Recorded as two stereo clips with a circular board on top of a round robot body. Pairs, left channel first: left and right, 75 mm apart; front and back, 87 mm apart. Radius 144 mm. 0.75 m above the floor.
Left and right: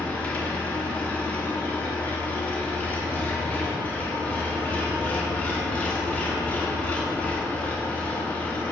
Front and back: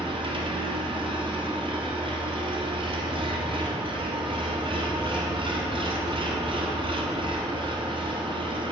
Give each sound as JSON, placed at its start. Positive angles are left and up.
{"t": 0.0, "sound": "an engine running", "azimuth_deg": 160, "distance_m": 1.1}